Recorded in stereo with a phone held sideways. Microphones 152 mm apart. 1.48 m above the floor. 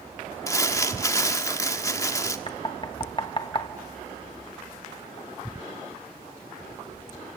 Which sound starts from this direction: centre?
Crumpling, at 0.5 s.